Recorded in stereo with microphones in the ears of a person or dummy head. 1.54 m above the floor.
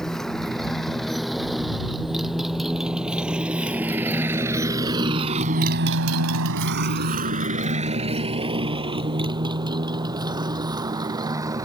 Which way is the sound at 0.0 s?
Centre (ahead or behind).